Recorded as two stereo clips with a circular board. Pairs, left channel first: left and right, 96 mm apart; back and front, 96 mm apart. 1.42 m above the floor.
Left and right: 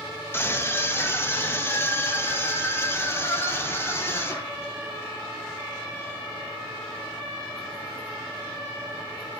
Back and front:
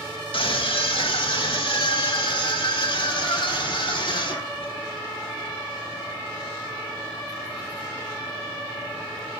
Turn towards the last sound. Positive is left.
turn(degrees=155)